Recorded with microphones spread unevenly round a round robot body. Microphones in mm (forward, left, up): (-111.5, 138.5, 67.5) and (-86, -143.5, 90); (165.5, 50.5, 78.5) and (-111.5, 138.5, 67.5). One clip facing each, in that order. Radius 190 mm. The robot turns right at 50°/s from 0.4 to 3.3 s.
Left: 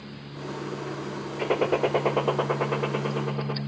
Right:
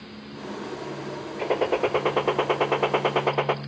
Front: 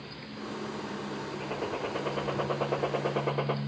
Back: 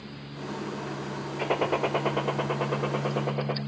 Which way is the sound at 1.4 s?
170° left.